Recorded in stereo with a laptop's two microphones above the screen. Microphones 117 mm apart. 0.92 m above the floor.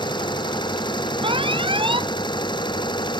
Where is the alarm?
45° right (ahead or behind).